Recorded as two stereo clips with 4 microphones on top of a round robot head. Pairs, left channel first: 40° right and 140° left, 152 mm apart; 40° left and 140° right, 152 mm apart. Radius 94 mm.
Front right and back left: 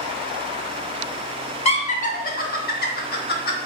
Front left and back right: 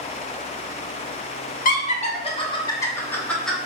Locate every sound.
1.6 s laughter: 10° left, 1.1 m; by 3.5 s 50° right, 1.3 m